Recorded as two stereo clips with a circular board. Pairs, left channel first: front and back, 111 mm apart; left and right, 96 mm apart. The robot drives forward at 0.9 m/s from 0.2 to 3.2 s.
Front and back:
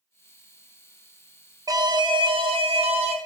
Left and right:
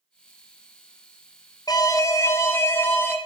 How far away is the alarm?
About 1.4 m.